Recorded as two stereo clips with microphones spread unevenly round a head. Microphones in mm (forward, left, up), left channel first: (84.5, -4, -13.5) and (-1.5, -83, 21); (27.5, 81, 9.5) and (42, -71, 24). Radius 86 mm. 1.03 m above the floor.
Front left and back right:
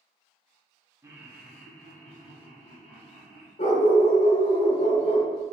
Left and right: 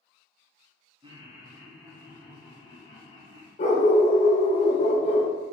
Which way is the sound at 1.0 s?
65° right.